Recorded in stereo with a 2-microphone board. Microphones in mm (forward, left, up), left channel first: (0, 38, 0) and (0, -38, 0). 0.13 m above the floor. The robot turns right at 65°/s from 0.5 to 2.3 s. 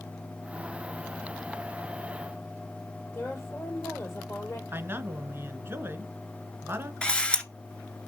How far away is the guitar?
I don't hear a guitar.